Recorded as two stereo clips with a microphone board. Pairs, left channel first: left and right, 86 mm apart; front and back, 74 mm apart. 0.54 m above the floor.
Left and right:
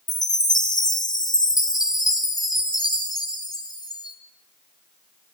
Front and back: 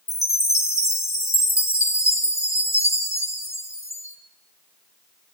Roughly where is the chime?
Ahead left.